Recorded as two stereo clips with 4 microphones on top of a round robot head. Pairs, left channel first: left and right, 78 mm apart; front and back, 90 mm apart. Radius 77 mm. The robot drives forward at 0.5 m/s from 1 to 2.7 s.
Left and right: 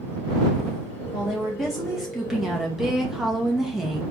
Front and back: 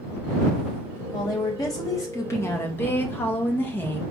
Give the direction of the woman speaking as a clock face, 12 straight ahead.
12 o'clock.